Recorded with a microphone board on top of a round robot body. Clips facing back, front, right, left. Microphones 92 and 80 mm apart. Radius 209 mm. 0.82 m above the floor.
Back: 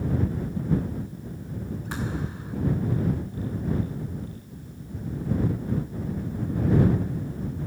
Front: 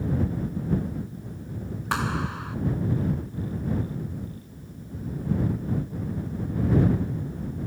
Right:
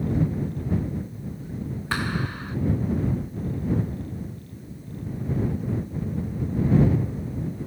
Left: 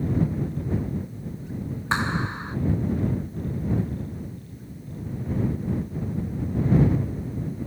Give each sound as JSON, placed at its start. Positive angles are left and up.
{"t": 1.9, "sound": "a clap", "azimuth_deg": 25}